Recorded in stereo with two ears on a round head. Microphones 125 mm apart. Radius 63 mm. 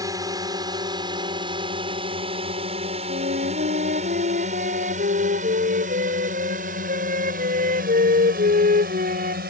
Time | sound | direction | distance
0.0 | a drone | 25° right (ahead or behind) | ?
3.1 | a flute | 60° right (ahead or behind) | ?